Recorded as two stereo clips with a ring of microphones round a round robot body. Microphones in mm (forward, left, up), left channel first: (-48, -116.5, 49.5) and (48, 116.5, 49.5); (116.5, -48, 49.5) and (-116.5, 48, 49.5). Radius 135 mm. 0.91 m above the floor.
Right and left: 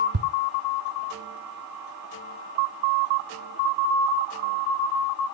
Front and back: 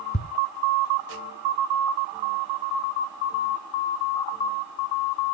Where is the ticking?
40° left, 1.5 m.